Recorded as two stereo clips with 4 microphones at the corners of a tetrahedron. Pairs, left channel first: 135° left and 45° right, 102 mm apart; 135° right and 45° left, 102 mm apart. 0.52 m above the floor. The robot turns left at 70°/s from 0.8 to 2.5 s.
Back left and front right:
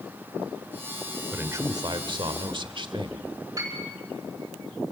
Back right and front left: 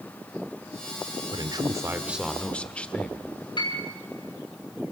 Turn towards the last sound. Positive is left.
turn(degrees=-100)